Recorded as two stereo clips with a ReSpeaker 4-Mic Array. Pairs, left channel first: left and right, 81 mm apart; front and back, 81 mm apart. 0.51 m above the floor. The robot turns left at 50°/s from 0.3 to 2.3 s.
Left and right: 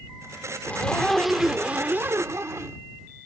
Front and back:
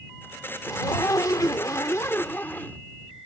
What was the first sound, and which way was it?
A zipper, 30° left.